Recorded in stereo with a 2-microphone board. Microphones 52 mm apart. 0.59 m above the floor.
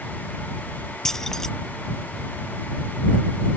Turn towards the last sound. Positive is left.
turn(degrees=10)  # may be behind; listen again after turning